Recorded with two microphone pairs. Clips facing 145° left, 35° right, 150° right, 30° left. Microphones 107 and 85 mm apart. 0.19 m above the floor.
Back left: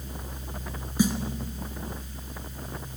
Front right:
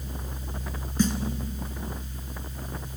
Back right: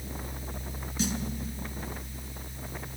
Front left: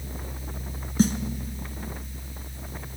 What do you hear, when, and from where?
1.0 s a snare drum: 65° left, 1.1 m